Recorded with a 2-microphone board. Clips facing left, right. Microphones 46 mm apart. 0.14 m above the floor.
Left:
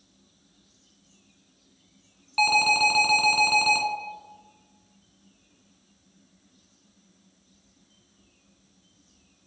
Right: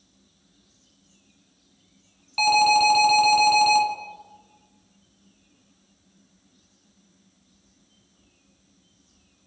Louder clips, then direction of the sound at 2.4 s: Right 3 dB; 10° left (ahead or behind).